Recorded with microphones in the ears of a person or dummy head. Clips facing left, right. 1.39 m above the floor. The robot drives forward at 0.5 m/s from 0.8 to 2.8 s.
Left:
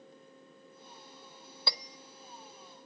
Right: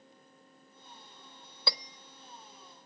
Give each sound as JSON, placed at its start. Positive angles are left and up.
{"t": 1.7, "sound": "a bell", "side_deg": -60, "distance_m": 0.9}